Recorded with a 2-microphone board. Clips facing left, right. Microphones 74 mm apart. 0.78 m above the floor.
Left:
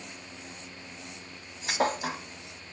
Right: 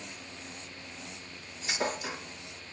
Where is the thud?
60° left (ahead or behind), 1.2 m.